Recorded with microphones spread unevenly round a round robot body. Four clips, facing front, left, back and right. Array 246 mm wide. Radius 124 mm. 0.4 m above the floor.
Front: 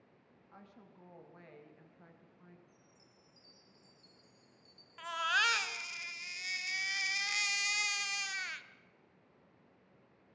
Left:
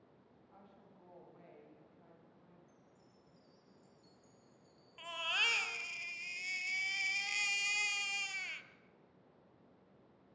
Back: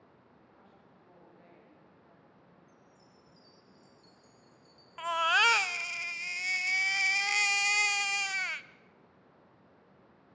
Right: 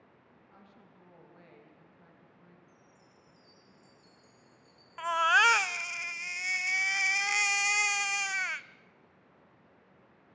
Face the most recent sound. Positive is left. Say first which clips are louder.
# right 17 dB, back 6 dB
turn(degrees=-130)